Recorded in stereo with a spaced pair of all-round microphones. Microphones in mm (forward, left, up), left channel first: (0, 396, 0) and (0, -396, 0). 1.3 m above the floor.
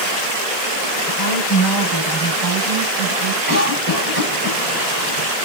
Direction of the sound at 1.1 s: 25° left (ahead or behind).